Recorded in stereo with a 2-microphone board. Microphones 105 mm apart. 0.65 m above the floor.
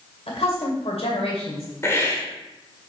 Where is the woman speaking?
70° left (ahead or behind), 2 m.